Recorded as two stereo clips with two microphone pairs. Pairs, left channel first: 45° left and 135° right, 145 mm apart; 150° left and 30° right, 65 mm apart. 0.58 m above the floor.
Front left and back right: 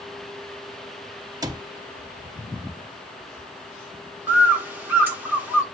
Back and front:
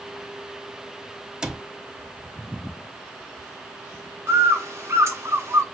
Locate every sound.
1.4 s a cupboard door: 105° right, 0.8 m
4.3 s a bird: 60° right, 1.5 m